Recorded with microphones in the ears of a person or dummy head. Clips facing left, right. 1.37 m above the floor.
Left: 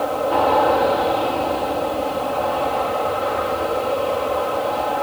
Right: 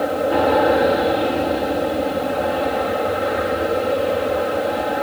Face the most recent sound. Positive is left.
turn(degrees=-25)  # may be behind; listen again after turning